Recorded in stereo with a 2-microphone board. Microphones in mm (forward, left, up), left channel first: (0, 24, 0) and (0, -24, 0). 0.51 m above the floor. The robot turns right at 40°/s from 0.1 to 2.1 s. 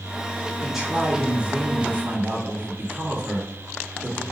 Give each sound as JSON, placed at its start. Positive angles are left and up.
{"t": 0.6, "sound": "a man speaking", "azimuth_deg": -175, "distance_m": 1.4}